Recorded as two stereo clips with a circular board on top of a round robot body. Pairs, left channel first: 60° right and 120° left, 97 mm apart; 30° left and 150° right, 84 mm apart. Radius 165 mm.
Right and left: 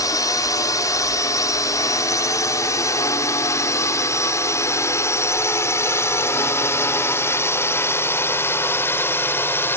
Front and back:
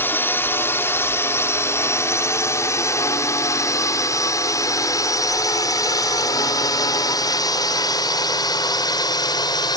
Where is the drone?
25° right; by 9.8 s 5° left.